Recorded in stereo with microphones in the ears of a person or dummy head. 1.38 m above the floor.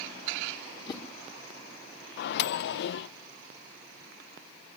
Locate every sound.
0.9 s a whoosh: 25° left (ahead or behind), 1.9 m
2.2 s a microwave: 65° left (ahead or behind), 0.7 m